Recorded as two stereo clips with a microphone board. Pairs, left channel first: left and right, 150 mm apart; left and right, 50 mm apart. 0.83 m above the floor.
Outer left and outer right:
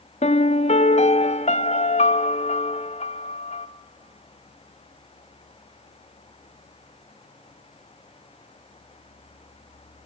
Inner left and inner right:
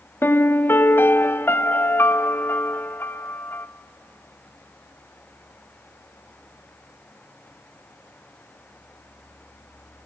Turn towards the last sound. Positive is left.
turn(degrees=50)  # may be behind; listen again after turning